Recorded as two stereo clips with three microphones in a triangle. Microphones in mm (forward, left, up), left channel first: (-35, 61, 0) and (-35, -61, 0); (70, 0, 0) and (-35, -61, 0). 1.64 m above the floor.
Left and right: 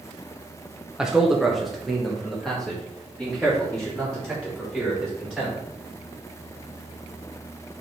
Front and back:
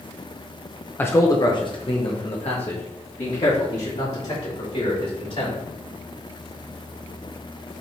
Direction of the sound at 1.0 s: 20° right.